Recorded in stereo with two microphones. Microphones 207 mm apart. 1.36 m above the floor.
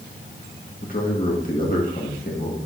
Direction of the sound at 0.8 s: 40° left (ahead or behind).